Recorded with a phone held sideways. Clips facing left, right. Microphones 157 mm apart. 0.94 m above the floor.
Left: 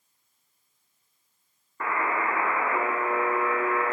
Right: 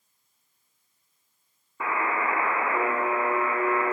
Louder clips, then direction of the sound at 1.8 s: Even; 5° right (ahead or behind).